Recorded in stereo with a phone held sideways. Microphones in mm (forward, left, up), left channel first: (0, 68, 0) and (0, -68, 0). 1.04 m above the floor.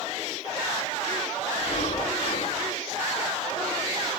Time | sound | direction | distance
1.6 | breathing | 55° left (ahead or behind) | 5 m